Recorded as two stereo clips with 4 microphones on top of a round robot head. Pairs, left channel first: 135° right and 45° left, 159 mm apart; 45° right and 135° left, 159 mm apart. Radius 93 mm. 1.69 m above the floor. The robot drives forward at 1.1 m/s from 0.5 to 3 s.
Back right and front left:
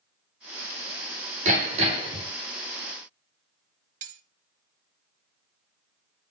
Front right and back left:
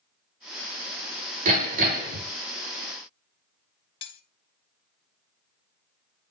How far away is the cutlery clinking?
About 1.2 m.